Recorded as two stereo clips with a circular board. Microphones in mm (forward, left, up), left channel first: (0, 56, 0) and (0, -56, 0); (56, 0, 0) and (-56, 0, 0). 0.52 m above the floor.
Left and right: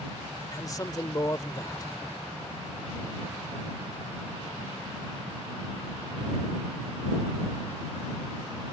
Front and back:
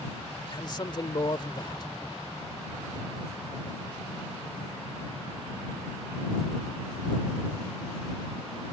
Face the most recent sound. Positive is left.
turn(degrees=40)